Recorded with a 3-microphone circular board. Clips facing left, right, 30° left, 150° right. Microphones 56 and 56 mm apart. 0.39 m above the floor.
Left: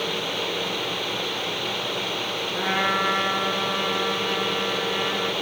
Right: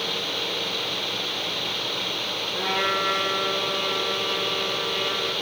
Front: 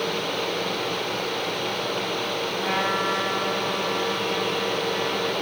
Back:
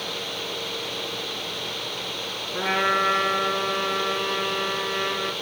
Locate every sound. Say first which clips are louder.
2.5 s a trumpet: left 1 dB, back 4 dB; 155° left, 2.5 m